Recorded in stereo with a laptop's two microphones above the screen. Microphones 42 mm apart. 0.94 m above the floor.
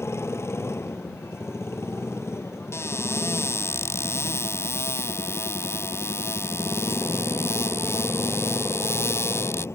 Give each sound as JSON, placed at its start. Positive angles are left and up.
{"t": 0.0, "sound": "a motorcycle", "side_deg": 85}
{"t": 2.7, "sound": "a cupboard door", "side_deg": 85}